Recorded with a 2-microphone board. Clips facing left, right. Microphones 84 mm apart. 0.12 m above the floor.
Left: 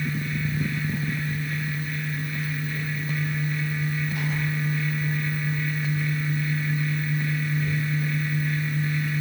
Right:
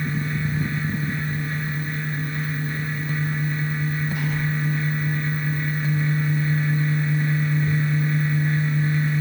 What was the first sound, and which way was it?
Only background noise.